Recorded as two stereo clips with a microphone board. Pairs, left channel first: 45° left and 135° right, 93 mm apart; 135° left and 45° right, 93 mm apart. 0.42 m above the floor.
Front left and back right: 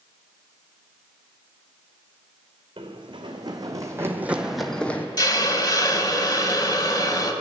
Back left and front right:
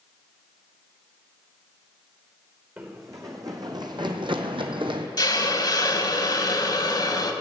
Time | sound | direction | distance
2.8 | running footsteps | 105° right | 1.7 m
5.2 | a hiss | 90° left | 0.9 m